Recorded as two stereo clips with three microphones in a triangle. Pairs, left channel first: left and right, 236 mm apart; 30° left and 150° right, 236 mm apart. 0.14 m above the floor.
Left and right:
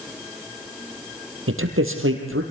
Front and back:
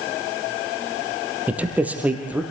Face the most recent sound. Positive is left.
turn(degrees=-65)